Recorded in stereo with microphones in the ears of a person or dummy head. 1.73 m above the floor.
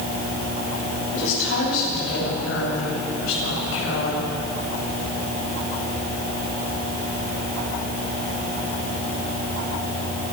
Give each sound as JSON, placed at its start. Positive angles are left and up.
{"t": 1.1, "sound": "a woman speaking", "side_deg": 80, "distance_m": 9.5}